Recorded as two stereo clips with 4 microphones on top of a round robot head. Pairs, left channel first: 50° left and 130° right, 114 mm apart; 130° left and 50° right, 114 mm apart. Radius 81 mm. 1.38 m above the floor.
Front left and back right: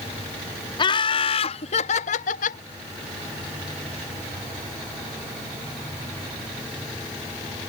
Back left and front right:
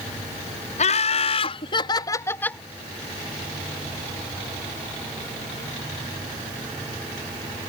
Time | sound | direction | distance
0.8 | laughter | 100° left | ?